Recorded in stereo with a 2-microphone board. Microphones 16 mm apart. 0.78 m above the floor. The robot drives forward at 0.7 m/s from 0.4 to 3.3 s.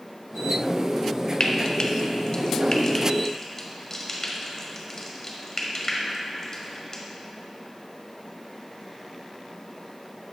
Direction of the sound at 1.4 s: 50° left (ahead or behind).